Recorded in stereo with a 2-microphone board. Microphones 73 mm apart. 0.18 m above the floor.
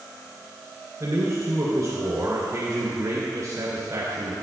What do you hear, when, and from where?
1.0 s a man speaking: 50° right (ahead or behind), 2.5 m